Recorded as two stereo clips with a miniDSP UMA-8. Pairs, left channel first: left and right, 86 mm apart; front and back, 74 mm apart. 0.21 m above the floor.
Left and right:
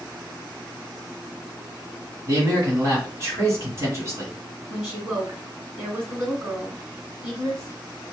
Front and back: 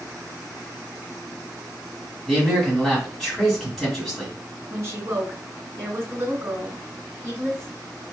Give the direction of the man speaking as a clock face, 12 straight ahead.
3 o'clock.